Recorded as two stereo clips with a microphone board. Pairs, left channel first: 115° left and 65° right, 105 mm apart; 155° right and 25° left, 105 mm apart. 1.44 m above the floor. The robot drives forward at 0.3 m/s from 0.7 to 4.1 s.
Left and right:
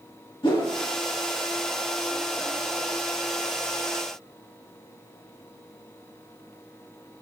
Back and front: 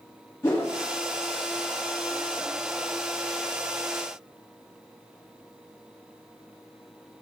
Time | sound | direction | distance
0.4 | a whoosh | 140° left | 1.3 m